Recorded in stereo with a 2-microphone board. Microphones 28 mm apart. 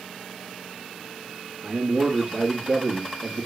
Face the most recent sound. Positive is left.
turn(degrees=-25)  # may be behind; listen again after turning